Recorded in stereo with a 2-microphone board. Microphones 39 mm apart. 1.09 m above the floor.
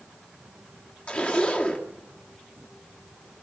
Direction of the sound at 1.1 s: 35° left (ahead or behind).